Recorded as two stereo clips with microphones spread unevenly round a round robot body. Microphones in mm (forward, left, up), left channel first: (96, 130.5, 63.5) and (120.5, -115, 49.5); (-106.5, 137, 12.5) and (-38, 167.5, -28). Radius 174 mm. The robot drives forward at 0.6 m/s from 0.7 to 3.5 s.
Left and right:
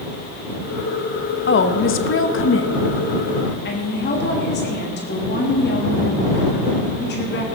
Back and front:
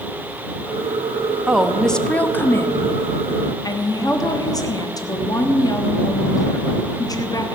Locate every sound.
1.5 s a woman speaking: 70° left, 1.0 m; by 7.5 s 145° left, 1.4 m